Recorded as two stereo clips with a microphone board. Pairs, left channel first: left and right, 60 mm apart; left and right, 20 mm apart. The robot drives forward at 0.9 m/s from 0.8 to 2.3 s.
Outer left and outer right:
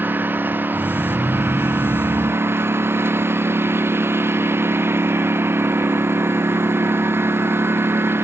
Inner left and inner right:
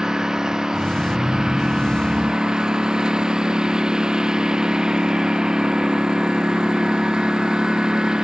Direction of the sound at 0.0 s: 35° right (ahead or behind).